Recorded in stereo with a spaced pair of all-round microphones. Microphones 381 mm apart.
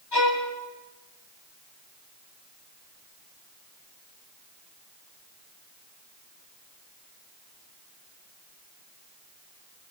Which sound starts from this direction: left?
A violin, at 0.1 s.